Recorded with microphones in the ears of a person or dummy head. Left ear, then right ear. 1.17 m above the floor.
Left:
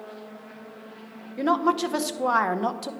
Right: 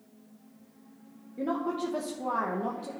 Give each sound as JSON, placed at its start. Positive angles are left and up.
{"t": 1.4, "sound": "a woman speaking", "side_deg": 55, "distance_m": 0.8}